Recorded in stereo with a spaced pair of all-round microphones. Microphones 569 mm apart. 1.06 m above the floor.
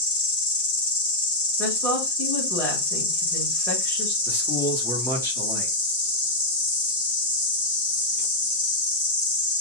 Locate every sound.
0.0 s an insect: 60° left (ahead or behind), 1.6 m
1.6 s a woman speaking: 5° left (ahead or behind), 1.6 m
4.3 s a man speaking: 5° left (ahead or behind), 1.2 m